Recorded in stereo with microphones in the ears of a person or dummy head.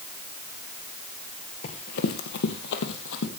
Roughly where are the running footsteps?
Left.